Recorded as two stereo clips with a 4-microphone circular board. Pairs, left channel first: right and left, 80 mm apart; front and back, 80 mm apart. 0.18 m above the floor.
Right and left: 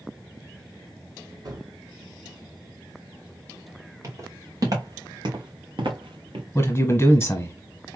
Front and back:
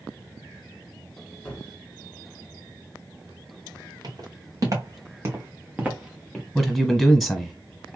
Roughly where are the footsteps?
Behind left.